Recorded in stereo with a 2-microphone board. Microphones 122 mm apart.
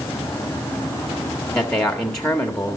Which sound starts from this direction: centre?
A man speaking, at 1.6 s.